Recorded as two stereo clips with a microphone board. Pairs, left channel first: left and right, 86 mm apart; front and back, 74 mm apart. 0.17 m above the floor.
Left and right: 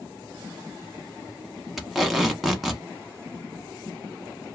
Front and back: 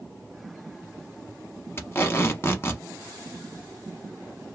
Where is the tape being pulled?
5° right, 0.8 m.